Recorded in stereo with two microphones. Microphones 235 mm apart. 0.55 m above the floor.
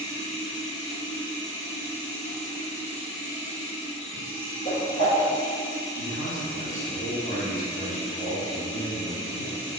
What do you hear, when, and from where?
0.0 s running water: 60° left (ahead or behind), 1.2 m
4.7 s a whoosh: 35° left (ahead or behind), 1.4 m
6.0 s a man speaking: 35° left (ahead or behind), 1.1 m